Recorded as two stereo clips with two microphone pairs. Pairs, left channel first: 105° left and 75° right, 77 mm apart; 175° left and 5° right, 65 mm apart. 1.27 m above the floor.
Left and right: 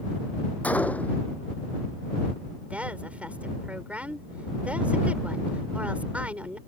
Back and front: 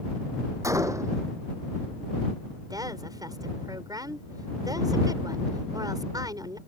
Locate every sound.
0.6 s a gunshot: 35° left
2.7 s a woman speaking: 5° right